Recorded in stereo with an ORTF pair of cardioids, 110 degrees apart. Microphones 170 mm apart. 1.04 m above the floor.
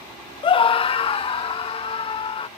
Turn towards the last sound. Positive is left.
turn(degrees=35)